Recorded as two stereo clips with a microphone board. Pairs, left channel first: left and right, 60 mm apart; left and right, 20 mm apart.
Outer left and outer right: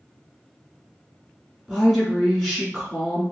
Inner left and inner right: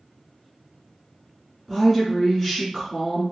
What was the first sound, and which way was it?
A woman speaking, centre (ahead or behind).